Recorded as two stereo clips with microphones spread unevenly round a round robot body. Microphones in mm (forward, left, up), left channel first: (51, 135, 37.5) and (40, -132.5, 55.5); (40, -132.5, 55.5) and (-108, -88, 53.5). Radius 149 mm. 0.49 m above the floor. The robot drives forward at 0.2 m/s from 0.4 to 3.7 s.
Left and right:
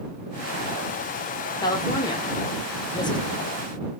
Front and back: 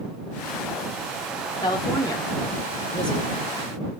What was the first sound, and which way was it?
A woman speaking, 30° left.